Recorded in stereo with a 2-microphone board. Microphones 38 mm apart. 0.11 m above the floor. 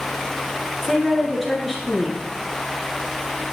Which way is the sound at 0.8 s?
Centre (ahead or behind).